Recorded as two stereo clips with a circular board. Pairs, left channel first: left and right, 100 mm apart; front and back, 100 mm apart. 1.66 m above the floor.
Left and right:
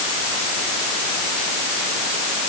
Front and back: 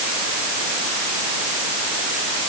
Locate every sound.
Only background noise.